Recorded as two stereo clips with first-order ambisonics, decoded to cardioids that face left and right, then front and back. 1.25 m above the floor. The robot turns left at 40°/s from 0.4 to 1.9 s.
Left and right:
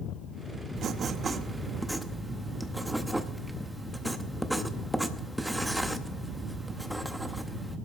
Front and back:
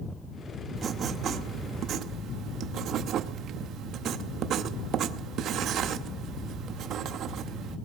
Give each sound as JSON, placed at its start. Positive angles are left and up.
{"t": 0.8, "sound": "writing", "azimuth_deg": -130, "distance_m": 0.7}